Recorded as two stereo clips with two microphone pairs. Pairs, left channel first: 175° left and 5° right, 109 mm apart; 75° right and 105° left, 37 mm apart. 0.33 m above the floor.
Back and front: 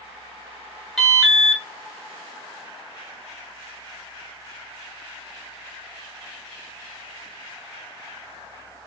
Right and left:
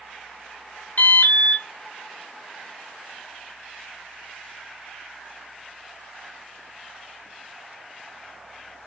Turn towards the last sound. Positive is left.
turn(degrees=-95)